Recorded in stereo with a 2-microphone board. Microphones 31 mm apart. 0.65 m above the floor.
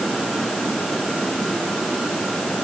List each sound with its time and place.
Only background noise.